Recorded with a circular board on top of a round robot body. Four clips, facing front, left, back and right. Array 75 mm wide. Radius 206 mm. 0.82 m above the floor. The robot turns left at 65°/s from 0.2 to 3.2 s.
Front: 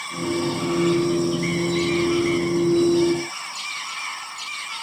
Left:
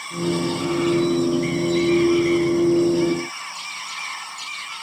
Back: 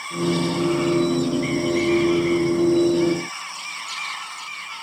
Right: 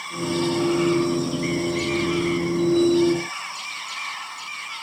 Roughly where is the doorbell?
I don't hear a doorbell.